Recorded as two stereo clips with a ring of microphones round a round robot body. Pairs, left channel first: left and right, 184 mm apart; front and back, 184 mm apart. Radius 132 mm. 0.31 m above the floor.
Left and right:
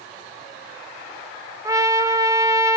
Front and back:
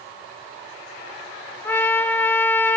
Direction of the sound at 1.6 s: 60° right.